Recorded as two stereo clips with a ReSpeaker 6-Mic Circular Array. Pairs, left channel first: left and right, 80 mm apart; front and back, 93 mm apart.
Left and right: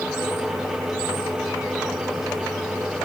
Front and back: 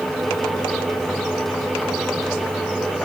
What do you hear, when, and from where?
Only background noise.